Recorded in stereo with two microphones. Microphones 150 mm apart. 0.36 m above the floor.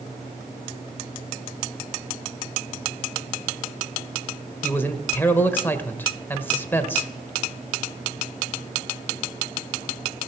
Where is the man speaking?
15° left (ahead or behind), 1.2 m.